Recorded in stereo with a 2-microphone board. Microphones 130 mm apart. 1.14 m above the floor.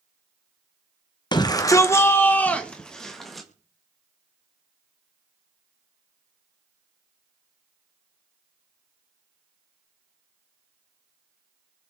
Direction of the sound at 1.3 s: 35° left (ahead or behind).